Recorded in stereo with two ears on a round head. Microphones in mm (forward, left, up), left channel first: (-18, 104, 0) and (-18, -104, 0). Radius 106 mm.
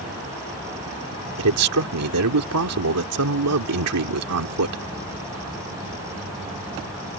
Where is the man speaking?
80° right.